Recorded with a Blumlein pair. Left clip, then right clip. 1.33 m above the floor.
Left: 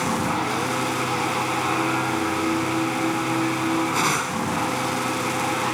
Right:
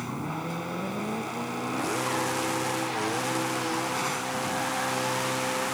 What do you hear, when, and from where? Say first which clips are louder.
0.0 s a machine running: left 11 dB; 30° left